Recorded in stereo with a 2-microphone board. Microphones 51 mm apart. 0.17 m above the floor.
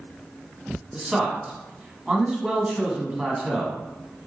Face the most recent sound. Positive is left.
turn(degrees=-15)  # may be behind; listen again after turning